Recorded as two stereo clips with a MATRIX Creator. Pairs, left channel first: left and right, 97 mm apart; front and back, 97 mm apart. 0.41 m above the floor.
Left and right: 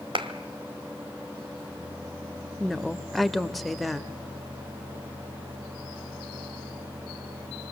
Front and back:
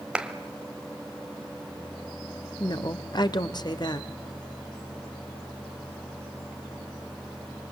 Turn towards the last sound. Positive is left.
turn(degrees=0)